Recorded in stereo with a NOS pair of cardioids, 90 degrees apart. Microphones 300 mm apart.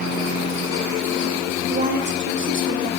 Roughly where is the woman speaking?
Ahead right.